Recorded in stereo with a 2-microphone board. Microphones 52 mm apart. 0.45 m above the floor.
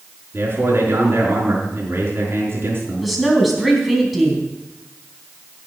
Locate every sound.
0.3 s a man speaking: 50° right (ahead or behind), 5 m
3.0 s a woman speaking: centre (ahead or behind), 3.5 m